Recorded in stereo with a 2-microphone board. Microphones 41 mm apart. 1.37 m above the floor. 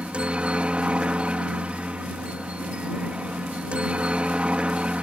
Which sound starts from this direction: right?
A helicopter, at 0.0 s.